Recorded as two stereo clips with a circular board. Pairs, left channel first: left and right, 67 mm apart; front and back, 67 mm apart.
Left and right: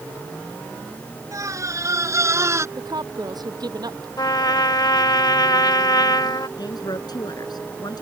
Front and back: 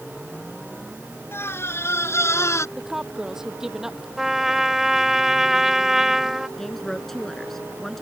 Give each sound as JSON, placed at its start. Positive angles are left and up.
{"t": 1.3, "sound": "a scream", "azimuth_deg": -50}
{"t": 2.8, "sound": "a woman speaking", "azimuth_deg": -95}
{"t": 4.2, "sound": "a trumpet", "azimuth_deg": 95}
{"t": 6.6, "sound": "a woman speaking", "azimuth_deg": 85}